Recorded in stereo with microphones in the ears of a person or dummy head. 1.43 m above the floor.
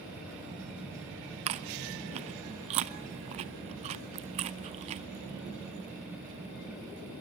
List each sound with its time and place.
1.5 s chewing: 35° right (ahead or behind), 0.7 m